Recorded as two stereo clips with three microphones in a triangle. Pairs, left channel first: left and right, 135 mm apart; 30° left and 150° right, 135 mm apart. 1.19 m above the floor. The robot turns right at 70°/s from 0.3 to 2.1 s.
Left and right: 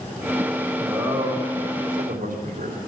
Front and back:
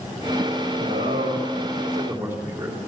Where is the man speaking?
170° right, 3.5 m; by 2.8 s 75° right, 3.5 m.